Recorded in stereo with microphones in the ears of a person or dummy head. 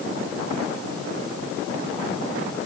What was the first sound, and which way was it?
Only background noise.